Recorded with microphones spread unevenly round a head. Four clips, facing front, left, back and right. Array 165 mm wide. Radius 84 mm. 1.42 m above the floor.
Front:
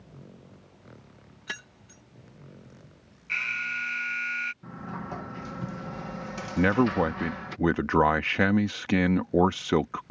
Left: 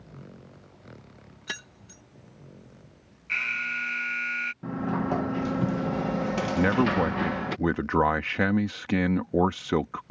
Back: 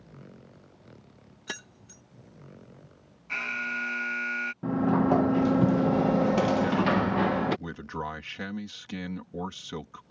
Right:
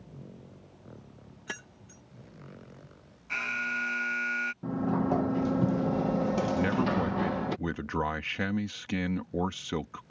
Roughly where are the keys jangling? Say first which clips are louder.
Left 2 dB, even; behind.